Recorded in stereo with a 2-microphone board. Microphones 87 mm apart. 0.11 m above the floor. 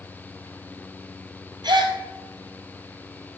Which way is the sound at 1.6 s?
60° right (ahead or behind).